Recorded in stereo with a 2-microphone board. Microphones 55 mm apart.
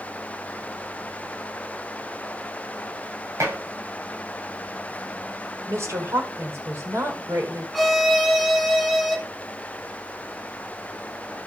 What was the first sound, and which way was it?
Dishes clattering, 55° right (ahead or behind).